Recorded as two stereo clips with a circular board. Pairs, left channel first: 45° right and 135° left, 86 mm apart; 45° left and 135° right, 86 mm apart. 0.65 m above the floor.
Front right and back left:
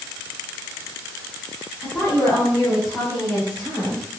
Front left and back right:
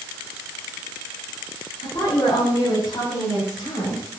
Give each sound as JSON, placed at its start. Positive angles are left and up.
{"t": 1.8, "sound": "a woman speaking", "azimuth_deg": 35, "distance_m": 5.5}